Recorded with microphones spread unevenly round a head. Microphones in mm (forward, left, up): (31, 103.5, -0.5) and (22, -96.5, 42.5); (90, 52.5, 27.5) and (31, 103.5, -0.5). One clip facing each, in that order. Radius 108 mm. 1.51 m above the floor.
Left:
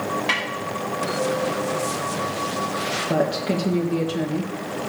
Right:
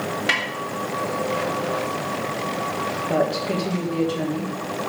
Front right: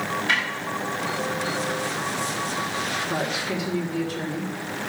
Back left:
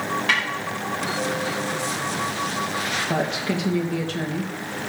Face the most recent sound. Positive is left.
turn(degrees=160)